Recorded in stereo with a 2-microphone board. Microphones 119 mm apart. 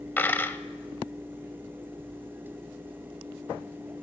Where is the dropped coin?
15° left (ahead or behind), 0.6 m.